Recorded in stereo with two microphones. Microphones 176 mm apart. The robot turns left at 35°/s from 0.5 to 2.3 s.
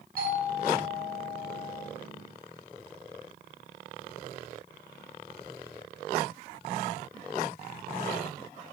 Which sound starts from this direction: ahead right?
A doorbell, at 0.2 s.